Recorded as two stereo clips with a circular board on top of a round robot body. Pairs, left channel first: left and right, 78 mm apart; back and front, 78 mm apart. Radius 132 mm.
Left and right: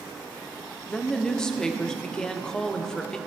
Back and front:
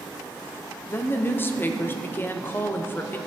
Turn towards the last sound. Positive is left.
turn(degrees=160)